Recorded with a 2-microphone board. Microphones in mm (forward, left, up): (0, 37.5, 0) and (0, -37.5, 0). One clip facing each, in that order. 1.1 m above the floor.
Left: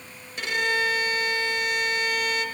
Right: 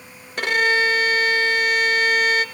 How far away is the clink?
No clink in this recording.